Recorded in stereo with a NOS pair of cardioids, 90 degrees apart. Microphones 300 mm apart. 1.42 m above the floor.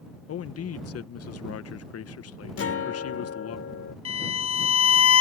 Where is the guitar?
50° left.